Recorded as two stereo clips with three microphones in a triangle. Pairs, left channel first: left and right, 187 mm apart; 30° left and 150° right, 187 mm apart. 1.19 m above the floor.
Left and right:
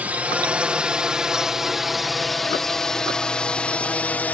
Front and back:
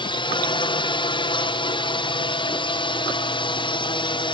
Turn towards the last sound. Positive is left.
turn(degrees=20)